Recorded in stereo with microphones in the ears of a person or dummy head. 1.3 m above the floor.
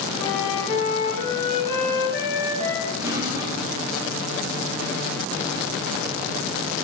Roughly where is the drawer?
Right.